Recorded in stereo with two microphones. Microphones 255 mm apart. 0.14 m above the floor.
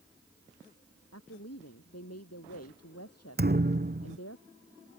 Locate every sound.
1.1 s a woman speaking: 75° left (ahead or behind)
3.4 s a thud: 40° right (ahead or behind)